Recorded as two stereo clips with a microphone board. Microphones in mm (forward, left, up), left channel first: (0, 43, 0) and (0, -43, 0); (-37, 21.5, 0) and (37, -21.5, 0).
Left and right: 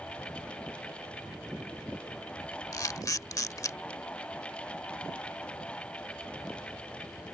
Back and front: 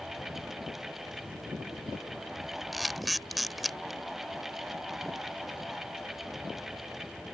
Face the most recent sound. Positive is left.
turn(degrees=60)